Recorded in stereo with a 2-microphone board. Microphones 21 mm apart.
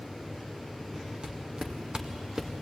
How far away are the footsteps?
About 3 m.